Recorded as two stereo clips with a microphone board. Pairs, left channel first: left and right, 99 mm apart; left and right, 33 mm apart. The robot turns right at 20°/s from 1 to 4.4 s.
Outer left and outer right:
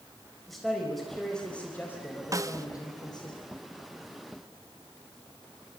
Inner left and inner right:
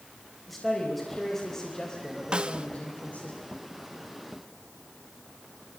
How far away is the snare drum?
About 0.9 m.